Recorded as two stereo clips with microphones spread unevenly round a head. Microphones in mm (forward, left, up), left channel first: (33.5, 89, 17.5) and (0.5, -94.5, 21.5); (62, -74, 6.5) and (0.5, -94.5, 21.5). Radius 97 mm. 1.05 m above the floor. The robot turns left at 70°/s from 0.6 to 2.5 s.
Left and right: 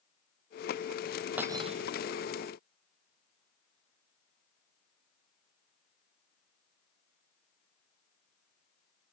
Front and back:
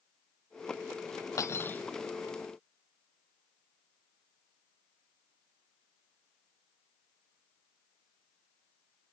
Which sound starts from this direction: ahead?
Cutlery clinking, at 1.4 s.